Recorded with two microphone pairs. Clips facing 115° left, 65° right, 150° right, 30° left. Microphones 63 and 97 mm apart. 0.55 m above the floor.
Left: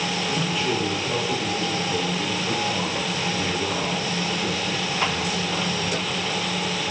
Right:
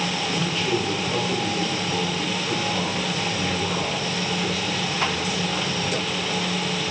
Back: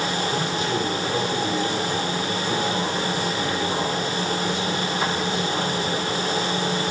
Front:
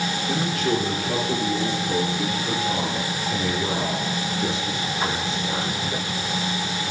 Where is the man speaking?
35° left, 9.5 m; by 5.8 s 20° left, 7 m.